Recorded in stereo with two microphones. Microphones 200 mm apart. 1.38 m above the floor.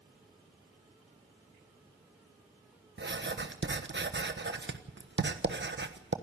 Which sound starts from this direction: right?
Writing, at 3.0 s.